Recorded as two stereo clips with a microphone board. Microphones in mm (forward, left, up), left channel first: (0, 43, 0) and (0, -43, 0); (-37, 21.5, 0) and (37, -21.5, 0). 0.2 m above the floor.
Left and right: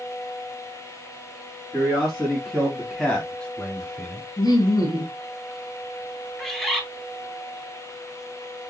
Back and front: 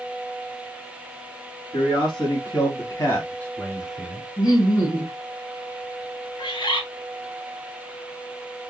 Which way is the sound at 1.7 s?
170° left.